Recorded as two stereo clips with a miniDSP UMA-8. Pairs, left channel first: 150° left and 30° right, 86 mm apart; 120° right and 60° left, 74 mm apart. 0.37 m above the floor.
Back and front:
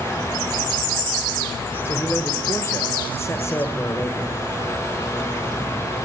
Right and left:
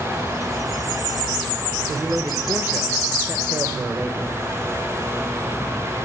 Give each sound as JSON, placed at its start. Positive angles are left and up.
{"t": 1.9, "sound": "a man speaking", "azimuth_deg": 110, "distance_m": 1.1}